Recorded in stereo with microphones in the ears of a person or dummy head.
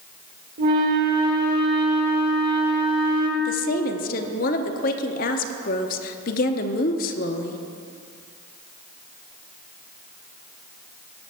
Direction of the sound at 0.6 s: 55° right (ahead or behind).